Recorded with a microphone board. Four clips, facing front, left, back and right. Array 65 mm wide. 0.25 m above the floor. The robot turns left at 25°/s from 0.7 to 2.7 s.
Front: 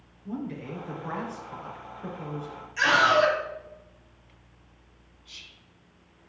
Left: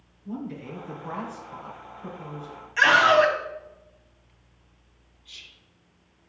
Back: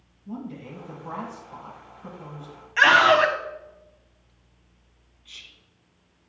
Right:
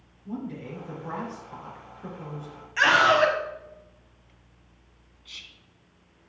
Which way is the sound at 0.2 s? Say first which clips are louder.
Even, front 2 dB; 5° left.